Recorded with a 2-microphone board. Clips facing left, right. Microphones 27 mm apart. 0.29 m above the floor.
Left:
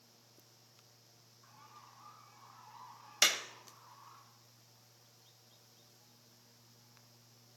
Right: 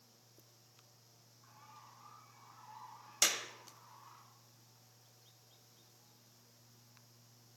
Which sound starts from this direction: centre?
A bird, at 1.4 s.